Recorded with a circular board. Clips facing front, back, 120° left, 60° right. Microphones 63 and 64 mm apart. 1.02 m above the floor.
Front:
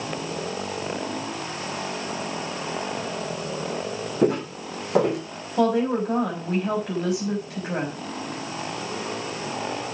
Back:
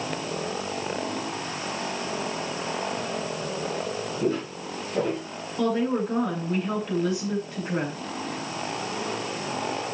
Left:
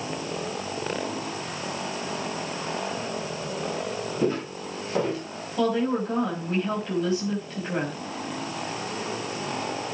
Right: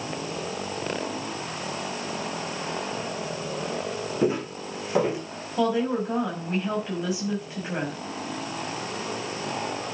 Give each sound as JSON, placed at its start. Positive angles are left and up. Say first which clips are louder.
{"t": 4.2, "sound": "footsteps", "louder": "front 6 dB, right 2 dB", "azimuth_deg": 20, "distance_m": 3.5}
{"t": 5.6, "sound": "a woman speaking", "louder": "front 3 dB, even", "azimuth_deg": 20, "distance_m": 6.0}